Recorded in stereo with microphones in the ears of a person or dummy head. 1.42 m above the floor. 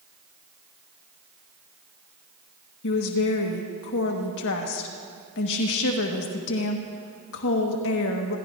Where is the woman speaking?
70° left (ahead or behind), 1.4 m.